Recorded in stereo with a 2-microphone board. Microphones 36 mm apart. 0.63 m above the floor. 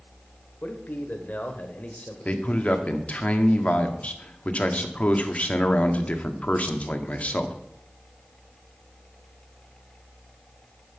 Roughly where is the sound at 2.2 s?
Left.